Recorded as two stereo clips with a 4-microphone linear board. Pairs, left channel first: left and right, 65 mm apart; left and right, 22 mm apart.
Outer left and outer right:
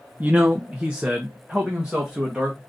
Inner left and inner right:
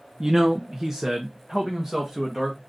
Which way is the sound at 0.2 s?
25° right (ahead or behind).